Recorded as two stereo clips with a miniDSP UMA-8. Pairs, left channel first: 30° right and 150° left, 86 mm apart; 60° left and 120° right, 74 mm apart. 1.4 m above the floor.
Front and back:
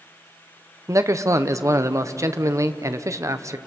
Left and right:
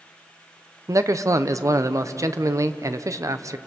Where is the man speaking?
160° right, 0.8 m.